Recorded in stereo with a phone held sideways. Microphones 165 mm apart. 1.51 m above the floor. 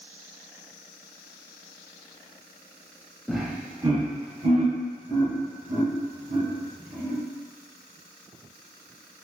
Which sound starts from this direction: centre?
Laughter, at 3.3 s.